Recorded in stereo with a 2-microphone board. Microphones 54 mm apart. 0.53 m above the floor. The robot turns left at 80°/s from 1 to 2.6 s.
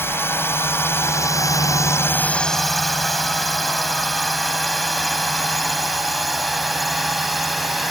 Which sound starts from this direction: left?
A drone, at 0.0 s.